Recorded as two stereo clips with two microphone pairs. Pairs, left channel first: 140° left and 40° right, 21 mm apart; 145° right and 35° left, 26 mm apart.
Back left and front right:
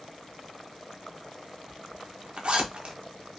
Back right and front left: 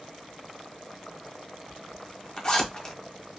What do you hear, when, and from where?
1.7 s a zipper: 85° right, 0.8 m